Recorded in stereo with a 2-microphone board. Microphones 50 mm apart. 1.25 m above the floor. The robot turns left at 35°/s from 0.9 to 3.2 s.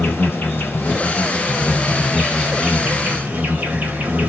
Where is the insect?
45° left, 1.2 m; by 4.3 s 35° right, 1.2 m.